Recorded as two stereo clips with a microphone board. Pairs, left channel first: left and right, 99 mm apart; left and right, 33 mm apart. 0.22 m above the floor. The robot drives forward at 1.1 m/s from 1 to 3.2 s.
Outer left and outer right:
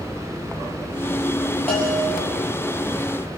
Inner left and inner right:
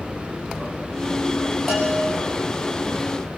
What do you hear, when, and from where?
1.7 s a bell: 10° left (ahead or behind), 6.5 m